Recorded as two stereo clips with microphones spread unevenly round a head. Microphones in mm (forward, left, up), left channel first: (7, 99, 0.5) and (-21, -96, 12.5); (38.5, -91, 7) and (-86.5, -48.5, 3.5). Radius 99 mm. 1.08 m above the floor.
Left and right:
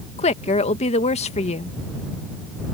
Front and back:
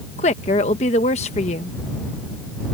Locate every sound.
0.2 s a woman speaking: 30° left